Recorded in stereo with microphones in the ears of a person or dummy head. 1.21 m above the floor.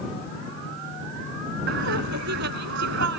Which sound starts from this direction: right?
Laughter, at 1.7 s.